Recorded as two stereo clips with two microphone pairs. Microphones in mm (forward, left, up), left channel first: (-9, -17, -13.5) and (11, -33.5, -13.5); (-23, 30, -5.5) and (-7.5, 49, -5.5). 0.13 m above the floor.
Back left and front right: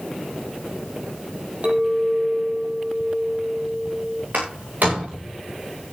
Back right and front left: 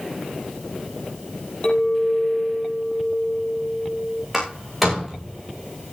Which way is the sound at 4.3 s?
35° right.